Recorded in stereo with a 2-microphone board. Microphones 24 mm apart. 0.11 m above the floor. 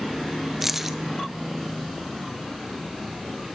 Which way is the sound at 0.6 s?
15° right (ahead or behind).